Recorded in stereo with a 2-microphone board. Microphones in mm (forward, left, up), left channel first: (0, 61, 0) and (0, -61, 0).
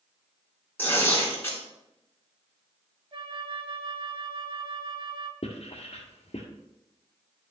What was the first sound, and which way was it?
Tearing paper, 15° left (ahead or behind).